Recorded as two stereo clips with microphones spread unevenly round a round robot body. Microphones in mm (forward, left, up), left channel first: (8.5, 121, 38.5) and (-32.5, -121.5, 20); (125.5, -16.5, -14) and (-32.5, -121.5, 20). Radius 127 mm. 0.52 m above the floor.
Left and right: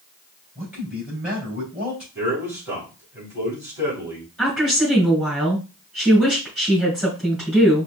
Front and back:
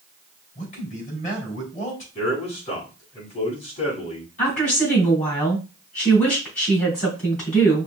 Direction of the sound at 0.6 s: 15° right.